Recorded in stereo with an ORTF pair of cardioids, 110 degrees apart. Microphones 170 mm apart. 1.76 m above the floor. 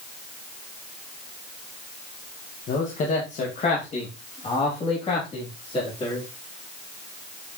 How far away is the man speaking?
About 1.8 m.